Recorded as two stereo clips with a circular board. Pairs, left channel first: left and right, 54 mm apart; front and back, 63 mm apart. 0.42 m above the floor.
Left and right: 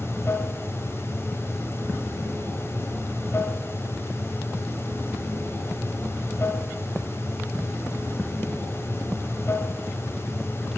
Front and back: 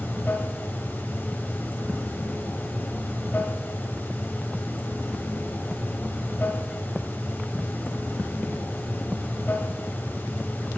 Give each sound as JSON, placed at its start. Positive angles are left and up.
{"t": 0.0, "sound": "running water", "azimuth_deg": 55, "distance_m": 1.9}